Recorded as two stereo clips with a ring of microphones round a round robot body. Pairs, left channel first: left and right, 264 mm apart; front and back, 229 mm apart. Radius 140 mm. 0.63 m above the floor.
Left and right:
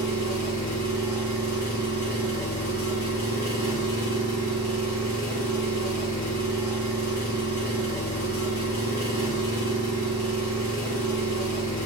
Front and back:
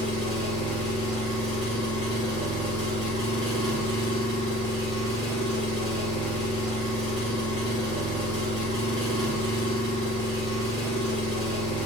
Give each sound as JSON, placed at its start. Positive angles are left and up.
{"t": 0.0, "sound": "an engine running", "azimuth_deg": -80, "distance_m": 1.9}